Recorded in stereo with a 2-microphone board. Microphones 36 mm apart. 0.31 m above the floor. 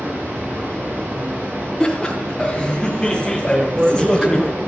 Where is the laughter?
10° left (ahead or behind), 2 m.